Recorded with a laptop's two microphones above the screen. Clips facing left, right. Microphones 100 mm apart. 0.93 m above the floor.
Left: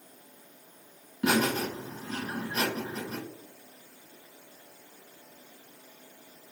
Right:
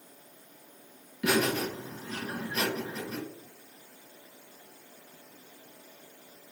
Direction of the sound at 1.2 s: 35° left (ahead or behind).